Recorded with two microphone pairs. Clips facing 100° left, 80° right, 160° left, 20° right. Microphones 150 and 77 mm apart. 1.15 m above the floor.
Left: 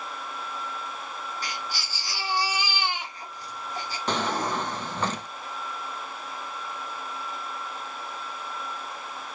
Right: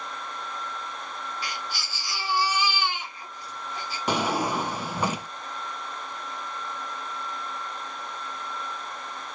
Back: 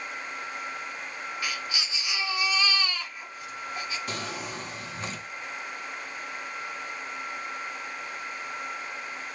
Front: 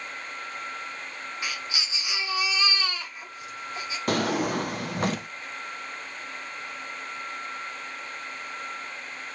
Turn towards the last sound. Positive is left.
turn(degrees=-5)